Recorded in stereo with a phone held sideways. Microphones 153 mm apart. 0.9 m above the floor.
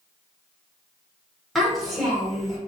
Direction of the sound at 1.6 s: Centre (ahead or behind).